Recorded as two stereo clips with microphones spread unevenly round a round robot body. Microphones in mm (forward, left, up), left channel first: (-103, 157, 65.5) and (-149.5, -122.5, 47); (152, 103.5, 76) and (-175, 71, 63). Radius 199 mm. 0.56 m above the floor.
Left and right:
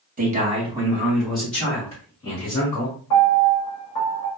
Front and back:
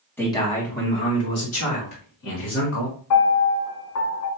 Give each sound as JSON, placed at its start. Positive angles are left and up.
{"t": 0.2, "sound": "a man speaking", "azimuth_deg": -75, "distance_m": 1.3}
{"t": 3.1, "sound": "a piano", "azimuth_deg": 40, "distance_m": 1.2}